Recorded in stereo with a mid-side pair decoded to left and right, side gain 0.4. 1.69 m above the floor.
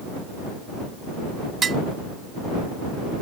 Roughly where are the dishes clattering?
Ahead right.